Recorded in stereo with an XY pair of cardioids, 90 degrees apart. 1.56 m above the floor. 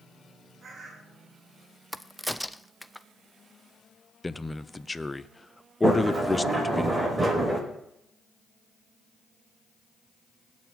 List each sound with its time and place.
0.6 s a bird: 50° right, 3 m
1.9 s a crack: straight ahead, 0.6 m
4.2 s a man speaking: 20° left, 0.8 m
5.8 s a sliding door: 30° right, 5.5 m